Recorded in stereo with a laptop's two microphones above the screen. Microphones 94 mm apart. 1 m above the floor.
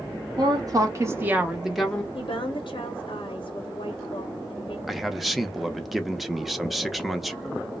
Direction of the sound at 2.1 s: 60° left (ahead or behind).